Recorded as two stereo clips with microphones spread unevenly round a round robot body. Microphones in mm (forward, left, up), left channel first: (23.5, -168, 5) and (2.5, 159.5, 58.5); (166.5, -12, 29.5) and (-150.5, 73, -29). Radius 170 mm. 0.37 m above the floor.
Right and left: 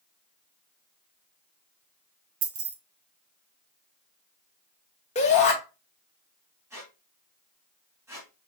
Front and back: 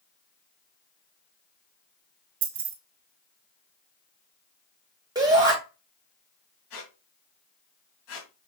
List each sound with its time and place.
2.4 s keys jangling: 140° left, 1.0 m
5.2 s a shout: 135° right, 1.7 m
6.7 s a squeak: 10° left, 2.5 m